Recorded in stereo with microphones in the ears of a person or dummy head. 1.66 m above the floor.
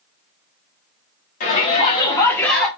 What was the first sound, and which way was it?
A shout, 45° left (ahead or behind).